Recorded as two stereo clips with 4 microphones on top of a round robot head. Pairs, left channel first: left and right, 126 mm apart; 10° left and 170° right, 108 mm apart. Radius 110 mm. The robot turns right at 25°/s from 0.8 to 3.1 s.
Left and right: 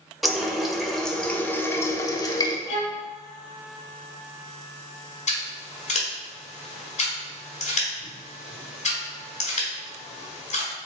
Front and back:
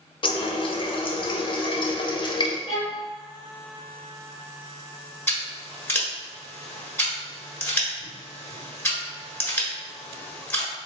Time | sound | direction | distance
0.2 | a running tap | straight ahead | 0.7 m
2.7 | a violin | 60° left | 0.8 m
5.3 | scissors | 80° left | 1.4 m